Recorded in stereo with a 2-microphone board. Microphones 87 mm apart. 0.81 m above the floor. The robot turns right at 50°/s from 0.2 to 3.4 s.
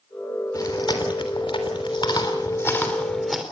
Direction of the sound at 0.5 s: 40° left (ahead or behind).